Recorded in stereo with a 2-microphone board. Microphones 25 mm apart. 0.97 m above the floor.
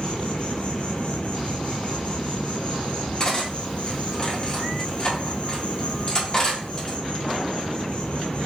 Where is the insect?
70° left (ahead or behind), 1.2 m.